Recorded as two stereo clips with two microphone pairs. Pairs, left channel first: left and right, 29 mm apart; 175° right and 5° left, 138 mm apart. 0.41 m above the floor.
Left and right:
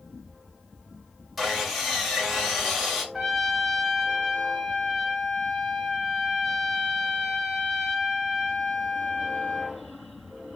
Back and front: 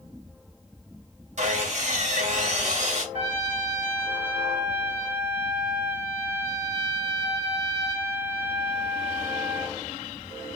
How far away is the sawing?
About 1.6 m.